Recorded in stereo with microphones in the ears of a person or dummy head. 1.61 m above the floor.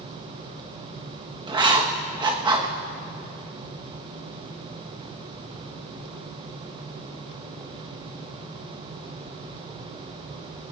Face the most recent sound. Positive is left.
turn(degrees=-15)  # may be behind; listen again after turning